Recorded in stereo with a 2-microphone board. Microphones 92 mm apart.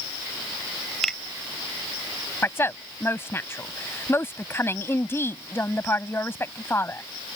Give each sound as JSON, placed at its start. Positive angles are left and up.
{"t": 1.0, "sound": "a finger snap", "side_deg": 5}
{"t": 2.4, "sound": "a woman speaking", "side_deg": 25}